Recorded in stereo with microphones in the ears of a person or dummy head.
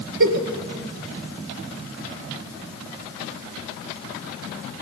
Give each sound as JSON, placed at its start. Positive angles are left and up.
{"t": 0.2, "sound": "a giggle", "side_deg": -60, "distance_m": 1.4}